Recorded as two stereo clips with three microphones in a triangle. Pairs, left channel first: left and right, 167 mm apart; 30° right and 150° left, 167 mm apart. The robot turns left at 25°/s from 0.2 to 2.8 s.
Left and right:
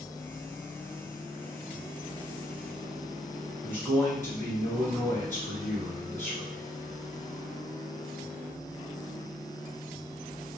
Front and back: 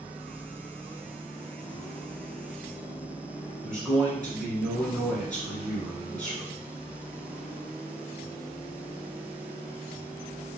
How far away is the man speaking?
About 1.6 m.